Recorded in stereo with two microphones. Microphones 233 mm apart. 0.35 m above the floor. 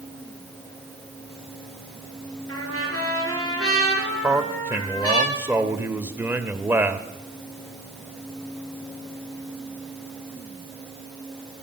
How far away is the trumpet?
About 4.5 m.